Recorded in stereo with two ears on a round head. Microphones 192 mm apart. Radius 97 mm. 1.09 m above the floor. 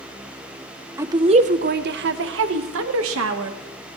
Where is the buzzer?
No buzzer in this recording.